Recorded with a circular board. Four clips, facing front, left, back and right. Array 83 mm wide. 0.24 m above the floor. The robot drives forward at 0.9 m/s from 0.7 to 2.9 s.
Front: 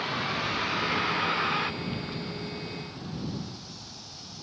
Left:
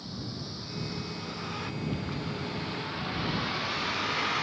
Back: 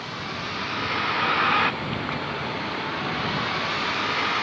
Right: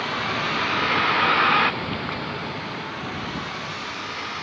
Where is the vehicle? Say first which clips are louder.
Right 14 dB, front 2 dB; 85° right; by 4.4 s 175° left.